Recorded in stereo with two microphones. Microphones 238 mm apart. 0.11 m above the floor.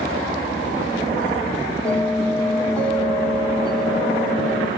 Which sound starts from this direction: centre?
A bell, at 1.9 s.